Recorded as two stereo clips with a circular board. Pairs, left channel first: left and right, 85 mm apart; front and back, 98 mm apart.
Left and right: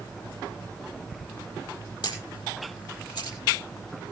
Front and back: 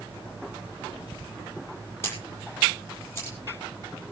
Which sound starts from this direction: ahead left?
A camera shutter, at 2.0 s.